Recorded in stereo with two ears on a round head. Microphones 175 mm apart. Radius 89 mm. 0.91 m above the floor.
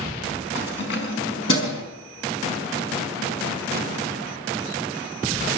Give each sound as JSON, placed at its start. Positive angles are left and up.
{"t": 0.6, "sound": "keys jangling", "side_deg": 60, "distance_m": 5.0}